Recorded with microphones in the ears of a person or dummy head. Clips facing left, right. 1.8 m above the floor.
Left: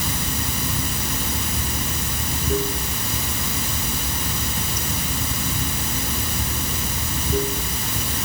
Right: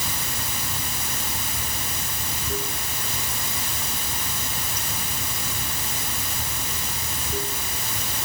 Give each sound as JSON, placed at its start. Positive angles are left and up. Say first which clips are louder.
{"t": 0.0, "sound": "running water", "louder": "left 6 dB", "side_deg": 60}